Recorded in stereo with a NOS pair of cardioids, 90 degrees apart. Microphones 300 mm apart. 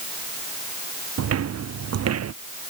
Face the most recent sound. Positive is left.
turn(degrees=-60)